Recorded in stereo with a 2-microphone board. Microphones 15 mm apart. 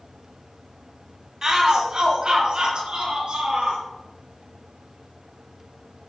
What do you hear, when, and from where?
1.4 s a shout: 35° right (ahead or behind), 2.0 m; by 3.8 s 65° right (ahead or behind), 4.5 m